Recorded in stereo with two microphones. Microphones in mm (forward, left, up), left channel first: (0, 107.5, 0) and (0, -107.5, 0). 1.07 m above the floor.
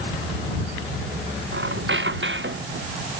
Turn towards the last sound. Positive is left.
turn(degrees=-65)  # may be behind; listen again after turning